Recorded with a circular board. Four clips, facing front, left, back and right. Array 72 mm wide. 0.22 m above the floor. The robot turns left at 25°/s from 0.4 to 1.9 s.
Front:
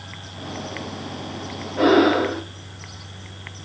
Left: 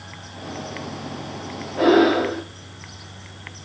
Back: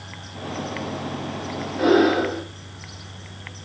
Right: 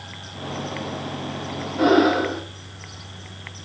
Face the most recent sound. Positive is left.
turn(degrees=30)